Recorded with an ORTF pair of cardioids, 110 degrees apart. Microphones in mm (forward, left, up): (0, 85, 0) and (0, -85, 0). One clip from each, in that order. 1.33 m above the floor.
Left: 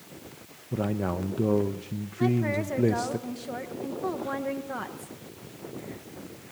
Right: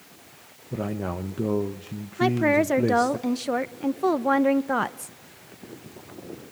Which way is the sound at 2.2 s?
55° right.